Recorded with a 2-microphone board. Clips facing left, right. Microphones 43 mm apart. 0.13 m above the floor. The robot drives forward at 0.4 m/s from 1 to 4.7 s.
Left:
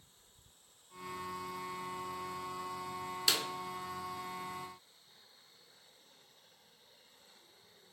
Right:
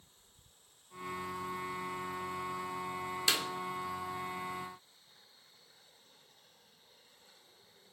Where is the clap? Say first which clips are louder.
Right 1 dB; 10° right (ahead or behind), 1.2 m.